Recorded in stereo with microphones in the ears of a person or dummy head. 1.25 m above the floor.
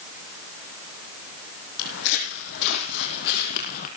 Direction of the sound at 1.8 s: 65° left (ahead or behind).